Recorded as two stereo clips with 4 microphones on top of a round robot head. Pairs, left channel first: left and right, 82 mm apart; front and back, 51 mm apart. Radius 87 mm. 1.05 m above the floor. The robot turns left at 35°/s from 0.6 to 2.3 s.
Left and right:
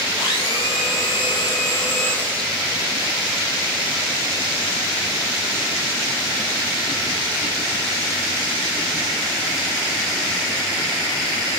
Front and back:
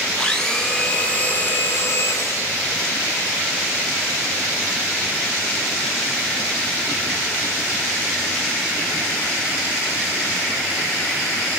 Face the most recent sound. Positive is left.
turn(degrees=15)